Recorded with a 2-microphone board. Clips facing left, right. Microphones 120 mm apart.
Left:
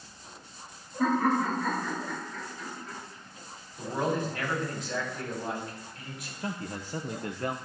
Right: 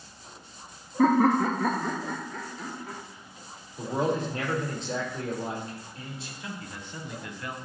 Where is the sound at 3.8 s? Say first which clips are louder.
Right 2 dB; 30° right (ahead or behind), 4 m.